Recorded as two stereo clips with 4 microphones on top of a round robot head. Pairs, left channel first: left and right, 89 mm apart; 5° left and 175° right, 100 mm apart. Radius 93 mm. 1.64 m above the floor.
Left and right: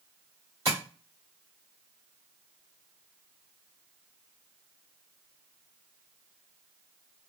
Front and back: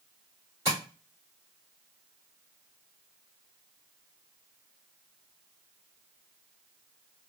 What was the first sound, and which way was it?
Tapping, 135° right.